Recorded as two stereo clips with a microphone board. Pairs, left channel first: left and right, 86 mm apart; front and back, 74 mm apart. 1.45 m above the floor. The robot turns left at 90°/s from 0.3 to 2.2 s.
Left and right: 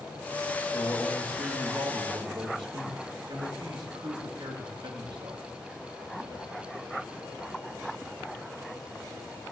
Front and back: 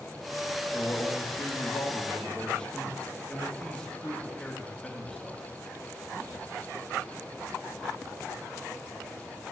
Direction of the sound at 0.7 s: 55° left.